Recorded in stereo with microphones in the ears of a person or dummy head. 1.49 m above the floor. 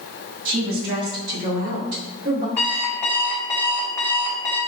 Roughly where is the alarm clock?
Centre.